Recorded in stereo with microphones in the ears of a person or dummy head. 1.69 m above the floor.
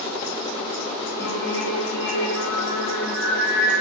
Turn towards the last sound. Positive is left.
turn(degrees=15)  # may be behind; listen again after turning